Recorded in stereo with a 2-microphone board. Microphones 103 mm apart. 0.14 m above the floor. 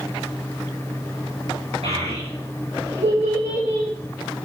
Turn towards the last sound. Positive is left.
turn(degrees=-80)